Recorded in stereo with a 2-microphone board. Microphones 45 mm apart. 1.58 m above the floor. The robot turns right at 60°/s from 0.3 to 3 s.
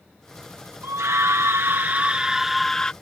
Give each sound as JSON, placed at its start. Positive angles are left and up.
{"t": 0.8, "sound": "a scream", "azimuth_deg": -105}